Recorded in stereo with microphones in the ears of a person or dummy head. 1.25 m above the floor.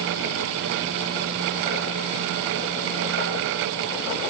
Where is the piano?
I don't hear a piano.